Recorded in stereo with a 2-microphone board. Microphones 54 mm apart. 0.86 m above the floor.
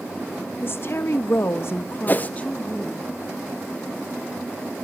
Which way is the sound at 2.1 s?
35° left (ahead or behind).